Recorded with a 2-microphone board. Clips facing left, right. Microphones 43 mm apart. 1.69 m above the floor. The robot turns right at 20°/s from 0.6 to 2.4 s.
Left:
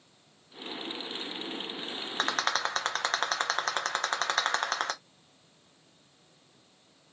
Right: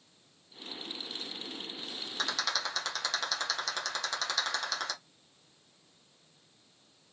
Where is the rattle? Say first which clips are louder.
Left 5 dB; 40° left (ahead or behind), 0.8 m; by 4.9 s 45° left (ahead or behind), 0.8 m.